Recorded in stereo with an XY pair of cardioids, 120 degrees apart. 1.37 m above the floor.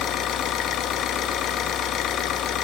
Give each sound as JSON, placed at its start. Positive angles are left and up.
{"t": 0.0, "sound": "an engine running", "azimuth_deg": 65, "distance_m": 1.6}